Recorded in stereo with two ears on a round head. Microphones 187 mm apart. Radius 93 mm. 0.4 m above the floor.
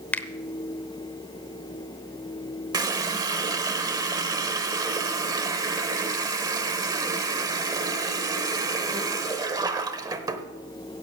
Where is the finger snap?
5° left (ahead or behind), 0.8 m.